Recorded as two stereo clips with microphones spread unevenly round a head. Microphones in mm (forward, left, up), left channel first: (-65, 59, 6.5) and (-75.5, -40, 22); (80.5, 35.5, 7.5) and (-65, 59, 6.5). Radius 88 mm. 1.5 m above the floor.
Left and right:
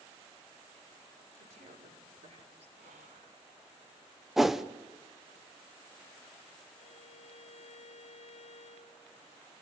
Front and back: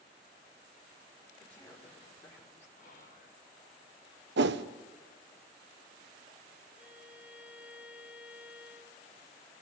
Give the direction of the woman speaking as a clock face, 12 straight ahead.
3 o'clock.